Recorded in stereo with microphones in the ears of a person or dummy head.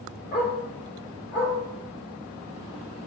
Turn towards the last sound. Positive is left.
turn(degrees=70)  # may be behind; listen again after turning